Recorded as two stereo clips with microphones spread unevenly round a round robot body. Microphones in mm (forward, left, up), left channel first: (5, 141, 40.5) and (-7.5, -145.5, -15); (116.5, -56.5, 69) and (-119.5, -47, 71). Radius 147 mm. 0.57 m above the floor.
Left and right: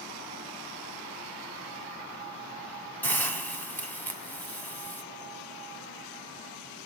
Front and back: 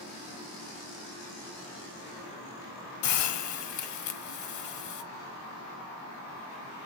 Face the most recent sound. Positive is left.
turn(degrees=5)